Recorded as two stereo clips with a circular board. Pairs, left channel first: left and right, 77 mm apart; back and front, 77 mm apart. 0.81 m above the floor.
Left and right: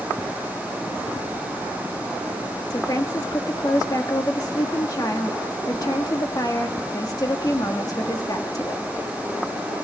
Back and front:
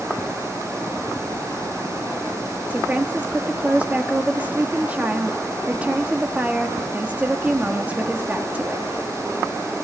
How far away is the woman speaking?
About 1.6 m.